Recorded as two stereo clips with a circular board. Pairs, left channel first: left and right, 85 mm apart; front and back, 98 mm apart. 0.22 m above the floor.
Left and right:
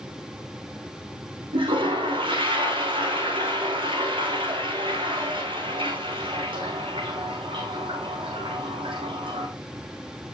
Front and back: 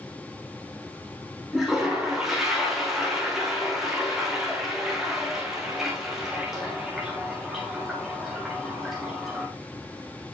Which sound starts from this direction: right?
A toilet flushing, at 1.5 s.